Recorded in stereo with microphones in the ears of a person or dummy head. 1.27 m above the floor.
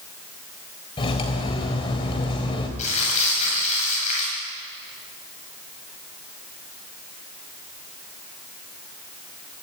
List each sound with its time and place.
1.0 s cutlery clinking: 30° left (ahead or behind), 3.5 m
2.8 s crumpling: 40° left (ahead or behind), 9.5 m